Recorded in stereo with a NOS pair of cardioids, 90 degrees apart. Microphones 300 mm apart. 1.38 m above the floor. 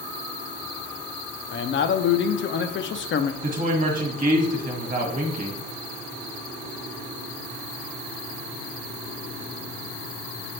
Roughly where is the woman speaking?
Ahead right.